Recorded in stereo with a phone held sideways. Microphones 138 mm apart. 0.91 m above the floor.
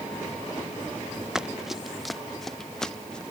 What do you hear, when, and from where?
1.4 s running footsteps: 5° right (ahead or behind); by 3.2 s 5° left (ahead or behind)